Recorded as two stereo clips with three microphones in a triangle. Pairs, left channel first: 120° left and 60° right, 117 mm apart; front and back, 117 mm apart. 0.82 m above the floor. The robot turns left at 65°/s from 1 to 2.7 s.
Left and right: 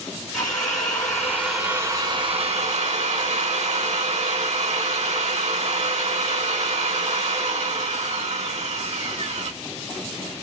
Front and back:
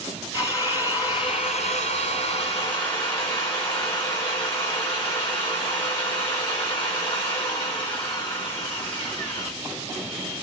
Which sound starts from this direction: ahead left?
A drill, at 0.3 s.